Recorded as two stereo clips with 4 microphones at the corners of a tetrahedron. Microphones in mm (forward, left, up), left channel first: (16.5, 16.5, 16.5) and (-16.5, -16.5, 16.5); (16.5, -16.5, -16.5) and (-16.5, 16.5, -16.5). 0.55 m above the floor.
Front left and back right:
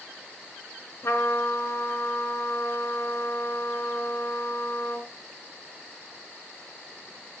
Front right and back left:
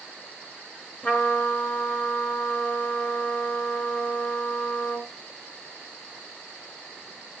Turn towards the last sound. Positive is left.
turn(degrees=15)